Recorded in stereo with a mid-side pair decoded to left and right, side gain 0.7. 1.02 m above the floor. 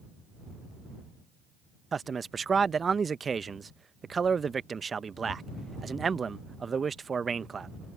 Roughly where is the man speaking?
Ahead right.